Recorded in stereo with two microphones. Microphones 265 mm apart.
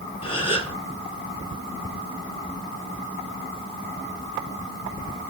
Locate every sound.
0.2 s a gasp: 20° left (ahead or behind), 1.4 m